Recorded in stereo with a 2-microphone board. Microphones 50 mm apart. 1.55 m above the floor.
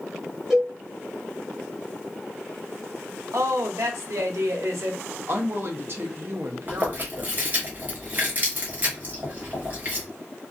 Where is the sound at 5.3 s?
50° right (ahead or behind), 0.7 m.